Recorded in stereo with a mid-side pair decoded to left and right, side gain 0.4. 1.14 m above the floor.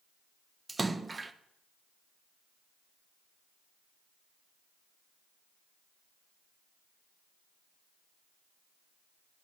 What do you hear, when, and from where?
0.7 s a splash: 25° right, 0.5 m